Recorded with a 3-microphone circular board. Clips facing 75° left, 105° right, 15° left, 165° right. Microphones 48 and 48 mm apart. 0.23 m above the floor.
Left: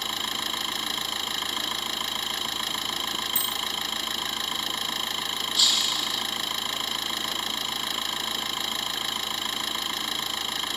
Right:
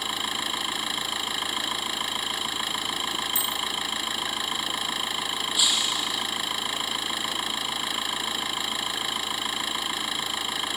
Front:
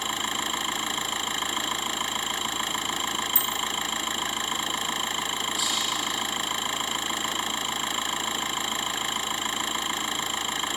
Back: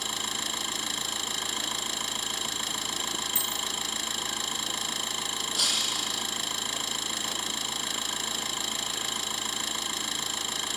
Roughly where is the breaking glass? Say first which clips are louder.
Even, front 2 dB; behind.